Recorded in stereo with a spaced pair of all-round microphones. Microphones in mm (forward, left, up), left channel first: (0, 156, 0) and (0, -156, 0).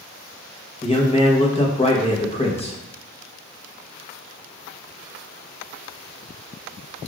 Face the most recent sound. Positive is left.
turn(degrees=20)  # may be behind; listen again after turning